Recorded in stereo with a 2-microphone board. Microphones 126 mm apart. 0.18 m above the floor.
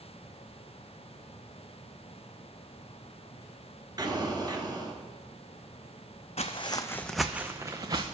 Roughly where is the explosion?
Right.